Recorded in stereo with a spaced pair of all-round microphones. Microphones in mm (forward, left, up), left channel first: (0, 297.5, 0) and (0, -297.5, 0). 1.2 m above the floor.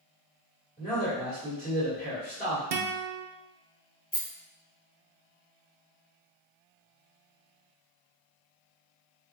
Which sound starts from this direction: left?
A rattle, at 4.1 s.